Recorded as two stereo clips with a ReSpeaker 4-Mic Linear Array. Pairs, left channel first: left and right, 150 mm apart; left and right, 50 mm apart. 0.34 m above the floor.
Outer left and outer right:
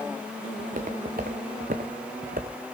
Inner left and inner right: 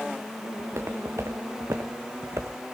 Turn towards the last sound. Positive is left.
turn(degrees=-75)  # may be behind; listen again after turning